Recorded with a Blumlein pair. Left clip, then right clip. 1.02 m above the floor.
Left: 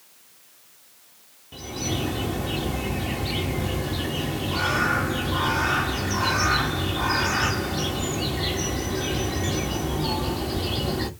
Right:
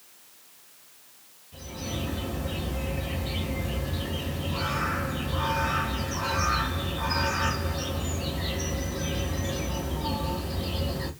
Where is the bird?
50° left, 1.3 m.